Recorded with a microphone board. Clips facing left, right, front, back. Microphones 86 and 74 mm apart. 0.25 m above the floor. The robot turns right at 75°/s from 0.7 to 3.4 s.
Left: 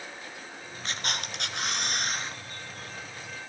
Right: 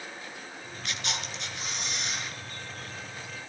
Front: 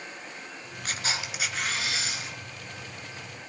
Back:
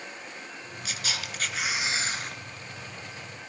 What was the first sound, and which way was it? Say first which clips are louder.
A camera shutter: left 2 dB, front 3 dB; 40° left.